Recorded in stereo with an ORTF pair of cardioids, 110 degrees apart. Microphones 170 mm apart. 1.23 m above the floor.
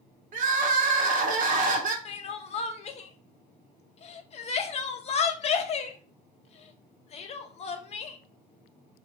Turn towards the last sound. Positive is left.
turn(degrees=40)